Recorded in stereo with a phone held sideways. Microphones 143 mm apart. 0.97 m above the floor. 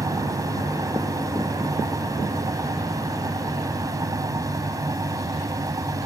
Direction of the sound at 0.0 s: 25° right (ahead or behind).